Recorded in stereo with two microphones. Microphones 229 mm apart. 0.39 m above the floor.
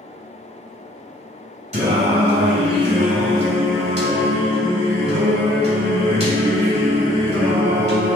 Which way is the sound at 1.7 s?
30° right (ahead or behind).